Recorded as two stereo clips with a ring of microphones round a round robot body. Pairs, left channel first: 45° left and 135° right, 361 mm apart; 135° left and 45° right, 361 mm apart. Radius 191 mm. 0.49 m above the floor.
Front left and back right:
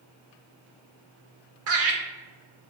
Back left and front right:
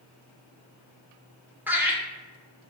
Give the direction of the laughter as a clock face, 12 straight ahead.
4 o'clock.